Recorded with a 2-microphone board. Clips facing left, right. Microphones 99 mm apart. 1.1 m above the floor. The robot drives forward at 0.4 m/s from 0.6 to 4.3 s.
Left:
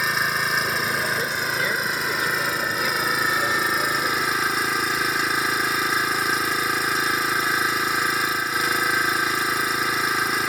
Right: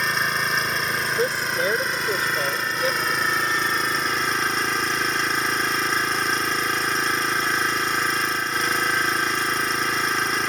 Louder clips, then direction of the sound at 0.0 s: Even; 5° left (ahead or behind).